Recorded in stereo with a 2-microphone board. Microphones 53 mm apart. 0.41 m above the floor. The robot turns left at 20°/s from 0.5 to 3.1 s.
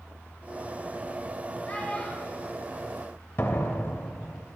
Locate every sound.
1.7 s a child speaking: 30° left (ahead or behind), 1.5 m; by 2.5 s 15° left (ahead or behind), 1.5 m
3.4 s a door slam: 45° left (ahead or behind), 1.4 m